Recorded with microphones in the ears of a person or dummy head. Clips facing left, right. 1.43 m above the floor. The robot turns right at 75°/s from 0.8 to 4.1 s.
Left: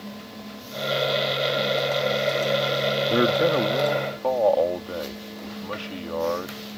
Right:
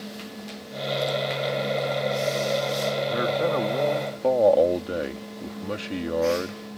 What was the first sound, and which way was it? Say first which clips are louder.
A man speaking: left 6 dB; 130° left.